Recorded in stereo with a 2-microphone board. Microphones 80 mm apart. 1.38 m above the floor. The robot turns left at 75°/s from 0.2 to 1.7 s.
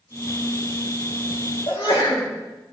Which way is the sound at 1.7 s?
70° left (ahead or behind).